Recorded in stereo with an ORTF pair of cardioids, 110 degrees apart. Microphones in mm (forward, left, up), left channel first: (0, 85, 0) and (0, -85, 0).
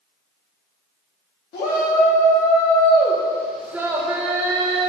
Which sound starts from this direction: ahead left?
A shout, at 1.5 s.